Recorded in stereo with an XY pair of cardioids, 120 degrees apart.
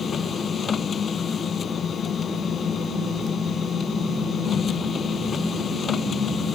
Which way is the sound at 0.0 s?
40° left.